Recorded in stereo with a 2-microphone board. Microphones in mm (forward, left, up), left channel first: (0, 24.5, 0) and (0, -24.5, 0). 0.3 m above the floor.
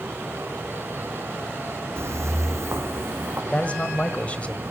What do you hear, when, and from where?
2.0 s footsteps: 60° right (ahead or behind), 0.8 m; by 3.4 s 55° right (ahead or behind), 1.8 m
3.5 s a man speaking: 30° left (ahead or behind), 1.2 m